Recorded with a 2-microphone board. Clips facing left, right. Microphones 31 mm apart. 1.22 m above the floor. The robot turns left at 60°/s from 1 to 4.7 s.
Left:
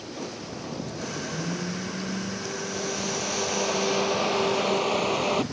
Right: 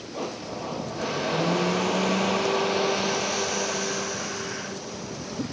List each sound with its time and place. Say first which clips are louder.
0.1 s a blender: right 6 dB; 30° right; by 5.4 s 110° left